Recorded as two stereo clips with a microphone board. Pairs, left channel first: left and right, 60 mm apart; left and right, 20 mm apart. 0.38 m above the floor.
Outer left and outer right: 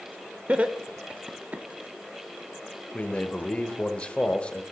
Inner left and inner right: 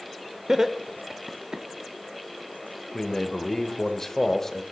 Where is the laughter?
25° right (ahead or behind), 0.8 m.